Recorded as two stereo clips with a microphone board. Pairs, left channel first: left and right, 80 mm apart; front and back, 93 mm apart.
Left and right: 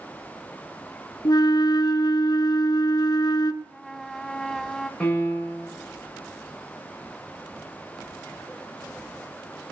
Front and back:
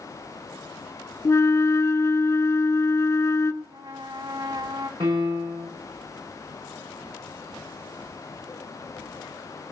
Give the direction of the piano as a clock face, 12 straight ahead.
7 o'clock.